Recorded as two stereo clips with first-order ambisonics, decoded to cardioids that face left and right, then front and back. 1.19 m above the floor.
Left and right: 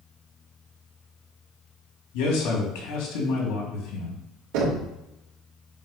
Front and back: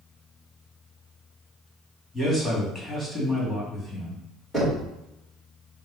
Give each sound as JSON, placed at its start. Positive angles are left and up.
{"t": 2.1, "sound": "a man speaking", "azimuth_deg": 90, "distance_m": 2.5}
{"t": 4.5, "sound": "knocking", "azimuth_deg": -95, "distance_m": 2.0}